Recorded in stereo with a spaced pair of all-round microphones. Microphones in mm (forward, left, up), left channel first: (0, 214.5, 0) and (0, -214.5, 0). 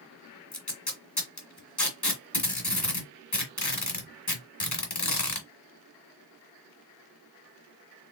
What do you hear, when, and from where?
0.5 s tape being pulled: 40° left (ahead or behind), 1.5 m